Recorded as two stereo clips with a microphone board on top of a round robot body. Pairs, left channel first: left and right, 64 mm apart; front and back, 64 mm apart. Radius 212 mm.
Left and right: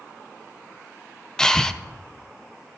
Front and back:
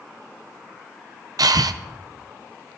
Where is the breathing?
170° left, 0.7 m.